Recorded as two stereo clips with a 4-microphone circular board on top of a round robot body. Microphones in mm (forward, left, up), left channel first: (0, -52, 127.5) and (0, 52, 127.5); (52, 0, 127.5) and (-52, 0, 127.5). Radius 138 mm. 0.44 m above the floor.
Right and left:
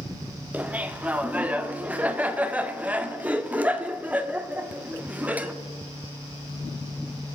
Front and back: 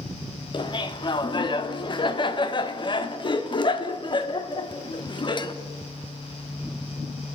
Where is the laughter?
20° left, 1.5 m.